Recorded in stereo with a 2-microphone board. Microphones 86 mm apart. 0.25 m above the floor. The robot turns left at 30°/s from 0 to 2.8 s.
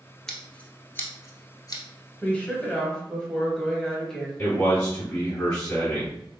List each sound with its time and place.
0.3 s scissors: 5° left (ahead or behind), 0.7 m; by 1.8 s 50° left (ahead or behind), 0.7 m
2.2 s a woman speaking: 15° left (ahead or behind), 1.0 m; by 4.3 s 10° left (ahead or behind), 1.0 m
4.4 s a man speaking: 20° left (ahead or behind), 1.8 m